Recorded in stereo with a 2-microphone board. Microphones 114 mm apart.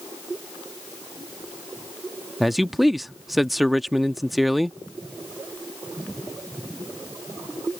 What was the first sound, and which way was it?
A man speaking, centre (ahead or behind).